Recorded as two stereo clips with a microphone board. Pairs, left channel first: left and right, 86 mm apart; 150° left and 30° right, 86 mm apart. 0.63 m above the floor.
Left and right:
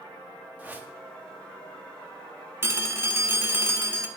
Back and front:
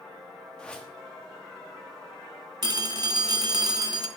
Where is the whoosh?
140° right, 1.0 m.